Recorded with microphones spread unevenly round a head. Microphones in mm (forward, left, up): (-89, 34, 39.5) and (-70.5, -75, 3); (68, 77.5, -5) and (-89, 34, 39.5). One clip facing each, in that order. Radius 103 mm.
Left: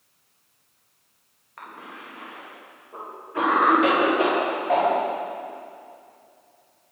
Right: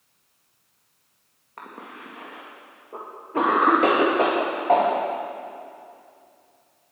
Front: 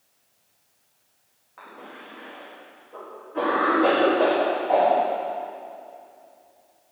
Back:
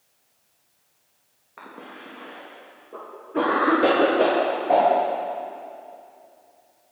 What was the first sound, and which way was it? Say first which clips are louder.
A cough: right 1 dB, back 2 dB; 115° right.